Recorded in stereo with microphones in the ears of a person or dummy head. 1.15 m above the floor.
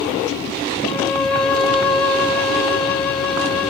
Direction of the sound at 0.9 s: Centre (ahead or behind).